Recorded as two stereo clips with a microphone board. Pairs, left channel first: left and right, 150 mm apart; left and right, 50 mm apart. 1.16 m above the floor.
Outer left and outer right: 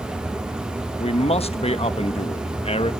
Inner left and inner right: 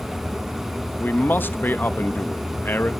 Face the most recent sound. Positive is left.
turn(degrees=40)  # may be behind; listen again after turning